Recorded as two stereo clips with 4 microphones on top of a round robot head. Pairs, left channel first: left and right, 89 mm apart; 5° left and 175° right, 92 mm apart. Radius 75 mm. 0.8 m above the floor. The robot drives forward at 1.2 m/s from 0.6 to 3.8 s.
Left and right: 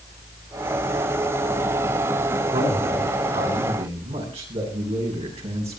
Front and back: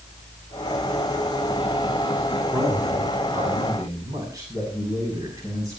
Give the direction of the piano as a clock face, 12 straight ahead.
I don't hear a piano.